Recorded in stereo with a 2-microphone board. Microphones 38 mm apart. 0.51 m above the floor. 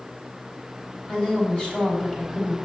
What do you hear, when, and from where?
1.1 s a woman speaking: 30° left (ahead or behind), 3.5 m